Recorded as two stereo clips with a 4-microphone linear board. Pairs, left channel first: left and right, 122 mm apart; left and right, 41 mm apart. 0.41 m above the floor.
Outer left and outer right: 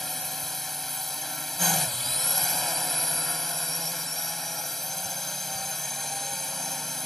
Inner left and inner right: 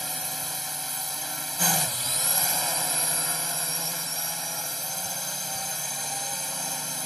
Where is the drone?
Centre (ahead or behind).